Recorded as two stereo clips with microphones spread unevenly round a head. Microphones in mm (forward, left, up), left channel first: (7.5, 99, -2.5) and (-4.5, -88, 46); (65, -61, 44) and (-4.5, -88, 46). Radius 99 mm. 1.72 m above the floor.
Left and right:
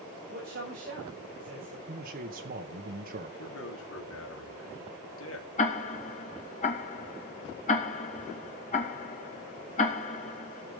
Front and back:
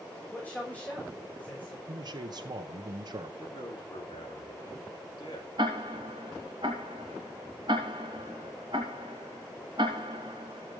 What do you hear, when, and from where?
0.3 s a man speaking: 50° right, 6.5 m
1.9 s a man speaking: 135° right, 1.2 m
3.4 s a man speaking: 70° left, 3.5 m
5.6 s ticking: 140° left, 2.5 m